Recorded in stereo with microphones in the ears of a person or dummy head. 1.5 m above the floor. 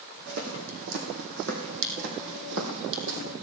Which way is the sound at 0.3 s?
65° right (ahead or behind).